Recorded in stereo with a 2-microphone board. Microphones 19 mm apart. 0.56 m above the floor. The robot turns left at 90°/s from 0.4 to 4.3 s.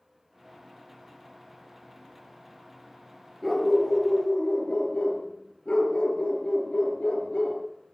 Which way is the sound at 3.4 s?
175° left.